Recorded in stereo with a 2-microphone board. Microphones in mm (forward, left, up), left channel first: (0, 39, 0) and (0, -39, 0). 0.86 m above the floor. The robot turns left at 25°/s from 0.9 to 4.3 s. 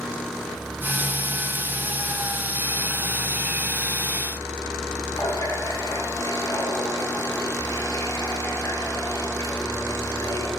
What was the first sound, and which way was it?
A running tap, 45° left (ahead or behind).